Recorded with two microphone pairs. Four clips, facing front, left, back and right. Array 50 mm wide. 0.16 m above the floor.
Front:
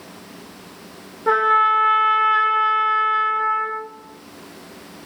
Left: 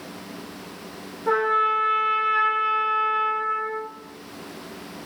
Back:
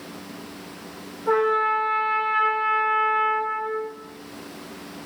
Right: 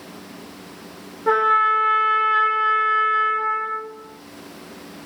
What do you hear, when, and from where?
1.3 s a trumpet: 30° right, 0.5 m